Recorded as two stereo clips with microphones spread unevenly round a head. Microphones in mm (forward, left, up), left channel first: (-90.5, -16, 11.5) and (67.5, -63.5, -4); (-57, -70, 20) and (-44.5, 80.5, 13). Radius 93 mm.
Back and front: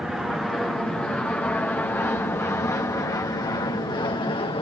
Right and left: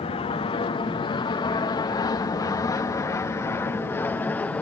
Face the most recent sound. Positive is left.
turn(degrees=-165)